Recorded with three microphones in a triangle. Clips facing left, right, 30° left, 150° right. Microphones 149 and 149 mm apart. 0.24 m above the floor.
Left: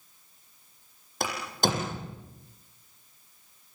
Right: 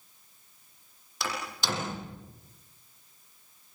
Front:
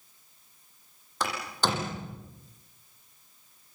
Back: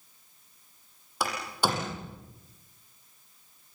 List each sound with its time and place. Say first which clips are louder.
1.2 s a door slam: left 6 dB, back 1 dB; 130° left, 8 m